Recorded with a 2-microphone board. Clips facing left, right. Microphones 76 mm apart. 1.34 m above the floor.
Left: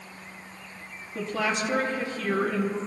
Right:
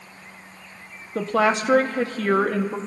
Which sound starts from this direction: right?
A woman speaking, at 1.1 s.